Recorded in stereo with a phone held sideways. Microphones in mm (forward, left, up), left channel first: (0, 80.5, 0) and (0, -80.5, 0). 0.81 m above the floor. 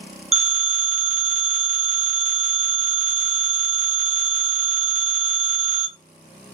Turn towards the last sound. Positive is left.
turn(degrees=-40)  # may be behind; listen again after turning